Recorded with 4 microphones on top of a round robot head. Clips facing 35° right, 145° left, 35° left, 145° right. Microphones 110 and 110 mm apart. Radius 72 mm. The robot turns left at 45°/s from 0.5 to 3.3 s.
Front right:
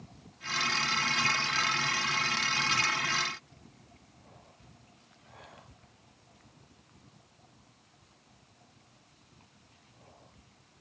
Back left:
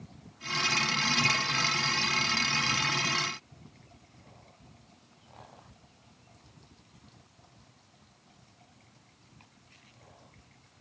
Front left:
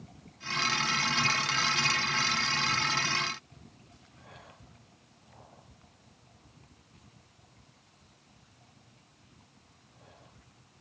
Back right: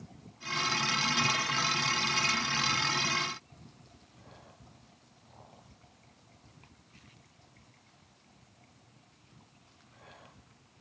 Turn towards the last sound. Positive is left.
No sound to turn to.